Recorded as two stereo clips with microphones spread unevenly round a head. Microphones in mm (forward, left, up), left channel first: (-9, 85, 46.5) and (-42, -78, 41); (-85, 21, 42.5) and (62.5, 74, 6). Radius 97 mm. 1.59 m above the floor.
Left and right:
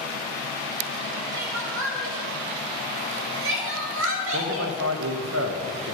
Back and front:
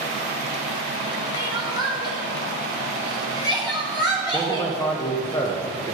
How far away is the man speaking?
About 1.1 m.